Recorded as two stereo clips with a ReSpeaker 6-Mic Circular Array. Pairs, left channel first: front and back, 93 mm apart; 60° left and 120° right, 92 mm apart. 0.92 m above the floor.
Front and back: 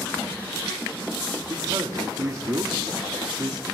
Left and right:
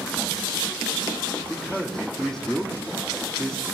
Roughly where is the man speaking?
Behind left.